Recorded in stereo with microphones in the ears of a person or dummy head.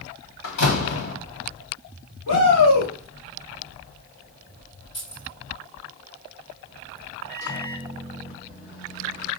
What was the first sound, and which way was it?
A door slam, 65° left (ahead or behind).